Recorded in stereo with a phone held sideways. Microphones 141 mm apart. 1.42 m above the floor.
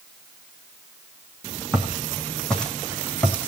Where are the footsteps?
Centre (ahead or behind), 3 m; by 3.5 s 15° left (ahead or behind), 2.5 m.